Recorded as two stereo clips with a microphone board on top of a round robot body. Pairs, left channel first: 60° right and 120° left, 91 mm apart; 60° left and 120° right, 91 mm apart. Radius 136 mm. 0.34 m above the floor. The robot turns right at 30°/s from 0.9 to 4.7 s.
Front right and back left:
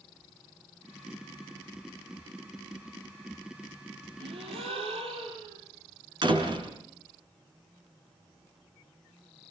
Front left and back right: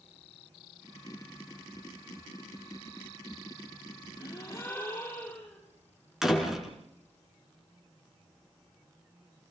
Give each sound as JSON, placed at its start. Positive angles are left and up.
{"t": 4.2, "sound": "a gasp", "azimuth_deg": 115, "distance_m": 6.5}
{"t": 6.2, "sound": "a door slam", "azimuth_deg": 155, "distance_m": 4.0}